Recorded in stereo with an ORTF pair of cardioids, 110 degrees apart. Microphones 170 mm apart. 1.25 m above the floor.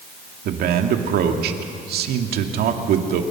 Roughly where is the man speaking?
Ahead right.